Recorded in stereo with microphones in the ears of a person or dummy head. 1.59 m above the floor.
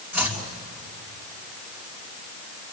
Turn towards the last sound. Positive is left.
turn(degrees=-10)  # may be behind; listen again after turning